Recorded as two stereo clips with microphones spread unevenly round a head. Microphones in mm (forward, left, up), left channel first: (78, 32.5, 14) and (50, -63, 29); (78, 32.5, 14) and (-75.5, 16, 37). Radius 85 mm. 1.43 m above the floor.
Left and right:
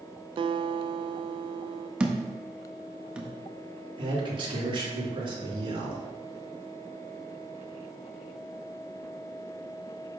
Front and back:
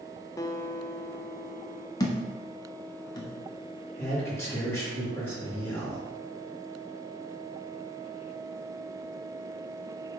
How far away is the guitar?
About 0.5 m.